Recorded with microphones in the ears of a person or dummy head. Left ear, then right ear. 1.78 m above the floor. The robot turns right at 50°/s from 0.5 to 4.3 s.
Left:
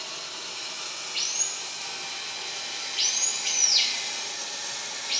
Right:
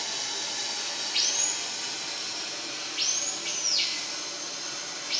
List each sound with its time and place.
0.0 s running water: 85° right, 3 m; by 5.2 s 105° left, 3 m